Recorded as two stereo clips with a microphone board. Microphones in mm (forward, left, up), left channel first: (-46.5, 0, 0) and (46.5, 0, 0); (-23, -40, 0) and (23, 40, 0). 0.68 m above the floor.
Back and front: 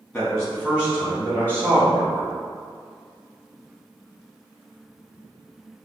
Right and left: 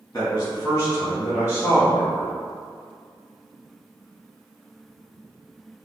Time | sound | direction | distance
0.1 | a man speaking | 105° right | 1.4 m